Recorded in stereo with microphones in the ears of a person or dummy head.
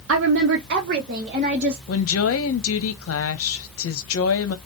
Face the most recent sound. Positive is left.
turn(degrees=70)  # may be behind; listen again after turning